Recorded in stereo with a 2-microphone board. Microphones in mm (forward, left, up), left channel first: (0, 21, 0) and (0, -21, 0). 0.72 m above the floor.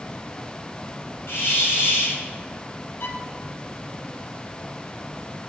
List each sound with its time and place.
1.3 s a hiss: 80° left, 3 m
3.0 s a violin: 55° left (ahead or behind), 1.2 m